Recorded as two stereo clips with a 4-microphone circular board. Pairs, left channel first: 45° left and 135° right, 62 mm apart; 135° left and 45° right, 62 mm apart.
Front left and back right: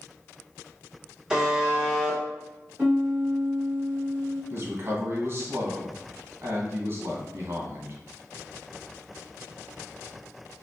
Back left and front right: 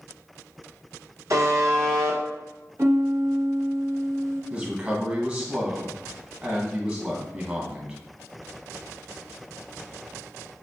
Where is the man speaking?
110° right, 1.3 m.